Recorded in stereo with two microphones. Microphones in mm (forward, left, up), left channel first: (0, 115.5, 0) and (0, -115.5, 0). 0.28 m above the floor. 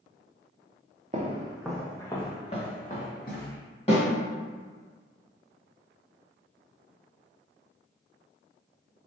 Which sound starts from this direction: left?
A snare drum, at 3.9 s.